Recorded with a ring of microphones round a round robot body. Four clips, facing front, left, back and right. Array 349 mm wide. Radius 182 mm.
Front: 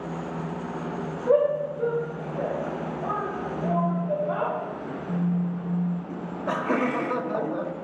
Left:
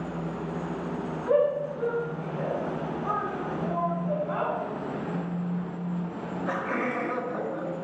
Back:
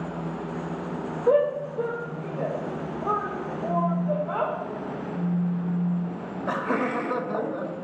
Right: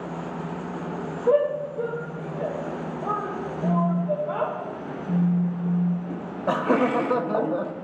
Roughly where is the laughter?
Right.